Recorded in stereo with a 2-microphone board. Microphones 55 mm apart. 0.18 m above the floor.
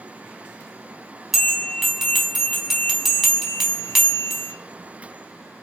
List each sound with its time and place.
1.3 s a bell: 5° right (ahead or behind), 0.8 m